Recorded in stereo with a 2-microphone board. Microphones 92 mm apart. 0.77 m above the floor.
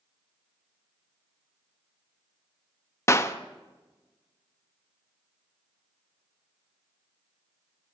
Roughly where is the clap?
Left.